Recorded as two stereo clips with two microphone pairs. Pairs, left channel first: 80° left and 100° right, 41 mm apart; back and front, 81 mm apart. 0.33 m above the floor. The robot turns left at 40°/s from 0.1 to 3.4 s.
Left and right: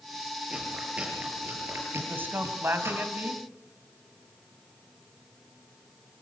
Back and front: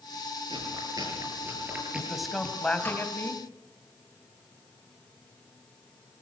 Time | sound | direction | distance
0.5 | chewing | 20° right | 7 m
1.9 | a man speaking | 75° right | 2.5 m